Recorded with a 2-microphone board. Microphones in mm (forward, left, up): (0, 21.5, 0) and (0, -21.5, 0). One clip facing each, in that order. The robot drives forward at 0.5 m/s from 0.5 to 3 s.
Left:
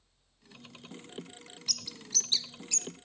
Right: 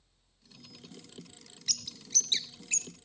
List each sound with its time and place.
1.7 s a bird: 65° right (ahead or behind), 0.5 m; by 2.9 s 40° right (ahead or behind), 0.7 m